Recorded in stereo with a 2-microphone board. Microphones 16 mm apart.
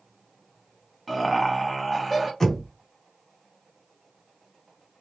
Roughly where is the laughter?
Centre.